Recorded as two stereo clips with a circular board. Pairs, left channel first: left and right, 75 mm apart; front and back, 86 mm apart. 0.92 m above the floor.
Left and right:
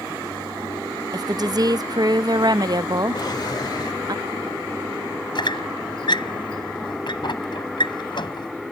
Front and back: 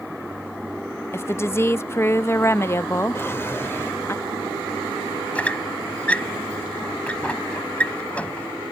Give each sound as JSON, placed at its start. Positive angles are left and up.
{"t": 1.1, "sound": "a woman speaking", "azimuth_deg": -60}
{"t": 3.1, "sound": "a drawer", "azimuth_deg": 60}
{"t": 5.3, "sound": "a squeak", "azimuth_deg": 75}